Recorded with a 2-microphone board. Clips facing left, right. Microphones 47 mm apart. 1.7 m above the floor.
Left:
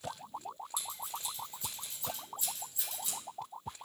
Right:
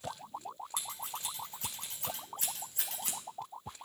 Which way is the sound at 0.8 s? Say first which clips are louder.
Even; 60° right (ahead or behind).